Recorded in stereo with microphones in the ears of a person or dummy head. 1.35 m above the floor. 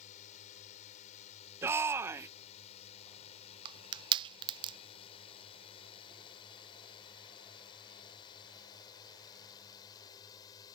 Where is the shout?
15° right (ahead or behind).